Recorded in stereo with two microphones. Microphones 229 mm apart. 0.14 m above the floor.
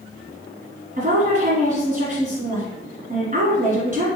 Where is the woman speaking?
35° right (ahead or behind), 1.4 m.